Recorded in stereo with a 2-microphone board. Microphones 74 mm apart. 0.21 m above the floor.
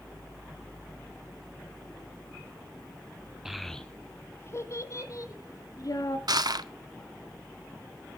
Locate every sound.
3.5 s a child speaking: 5° right (ahead or behind), 1.1 m; by 6.2 s 55° left (ahead or behind), 3 m
6.3 s crushing: 65° right (ahead or behind), 0.7 m